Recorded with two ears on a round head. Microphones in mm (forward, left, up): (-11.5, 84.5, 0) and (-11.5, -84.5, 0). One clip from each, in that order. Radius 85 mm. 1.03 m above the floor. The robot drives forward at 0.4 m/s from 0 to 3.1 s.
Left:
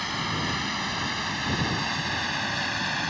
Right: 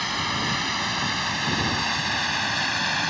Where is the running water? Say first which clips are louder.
Right 3 dB; 15° right (ahead or behind); by 3.1 s 20° right (ahead or behind).